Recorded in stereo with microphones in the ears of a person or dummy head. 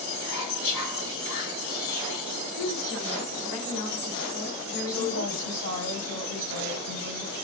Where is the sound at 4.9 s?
80° left, 3 m.